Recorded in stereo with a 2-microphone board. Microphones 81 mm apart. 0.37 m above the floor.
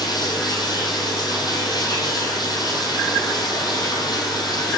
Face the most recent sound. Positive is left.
turn(degrees=60)  # may be behind; listen again after turning